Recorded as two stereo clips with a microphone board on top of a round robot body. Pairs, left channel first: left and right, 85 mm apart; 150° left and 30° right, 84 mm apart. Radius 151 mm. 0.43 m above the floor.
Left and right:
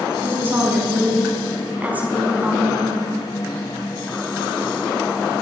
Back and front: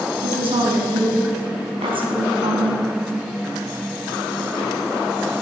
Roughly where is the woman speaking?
Ahead right.